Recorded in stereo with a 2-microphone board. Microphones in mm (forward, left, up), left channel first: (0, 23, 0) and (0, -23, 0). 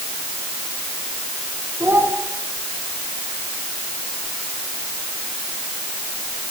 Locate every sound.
1.8 s a child speaking: 55° right (ahead or behind), 5.5 m